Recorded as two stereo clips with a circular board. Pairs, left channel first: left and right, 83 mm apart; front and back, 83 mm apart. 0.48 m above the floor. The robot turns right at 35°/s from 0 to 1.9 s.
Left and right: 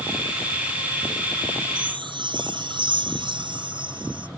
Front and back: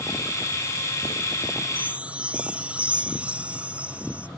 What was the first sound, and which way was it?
A chime, 110° right.